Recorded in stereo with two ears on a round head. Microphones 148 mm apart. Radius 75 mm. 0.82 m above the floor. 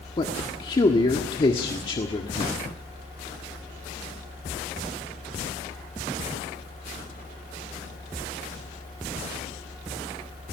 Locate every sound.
0.2 s a man speaking: 30° left (ahead or behind), 1.5 m